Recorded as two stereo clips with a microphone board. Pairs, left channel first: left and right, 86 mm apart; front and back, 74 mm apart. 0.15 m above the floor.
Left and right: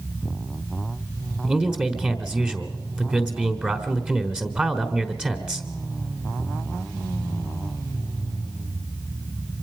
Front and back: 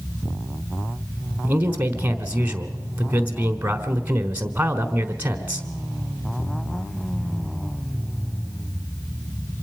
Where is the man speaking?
150° right, 1.4 m.